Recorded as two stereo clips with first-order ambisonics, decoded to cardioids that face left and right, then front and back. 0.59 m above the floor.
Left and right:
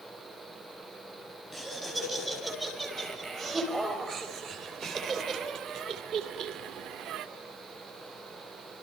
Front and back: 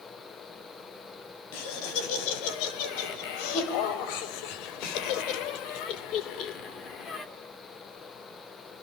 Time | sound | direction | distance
1.5 | laughter | 5° right | 5 m